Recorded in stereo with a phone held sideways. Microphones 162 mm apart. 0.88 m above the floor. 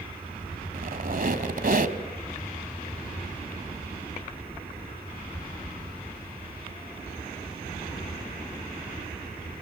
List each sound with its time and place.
0.7 s a squeak: 65° right (ahead or behind), 1.3 m